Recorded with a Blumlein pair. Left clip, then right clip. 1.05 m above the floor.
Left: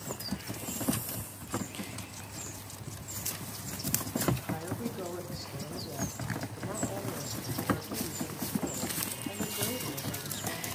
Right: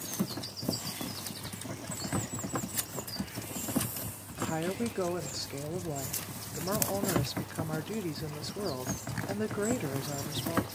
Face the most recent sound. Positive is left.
turn(degrees=-25)